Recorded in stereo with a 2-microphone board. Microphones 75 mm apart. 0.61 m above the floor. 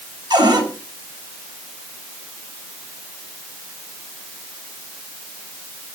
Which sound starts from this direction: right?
A cupboard door, at 0.3 s.